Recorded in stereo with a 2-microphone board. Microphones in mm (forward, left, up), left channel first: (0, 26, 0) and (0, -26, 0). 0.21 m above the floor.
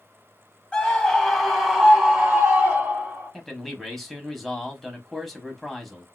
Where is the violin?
I don't hear a violin.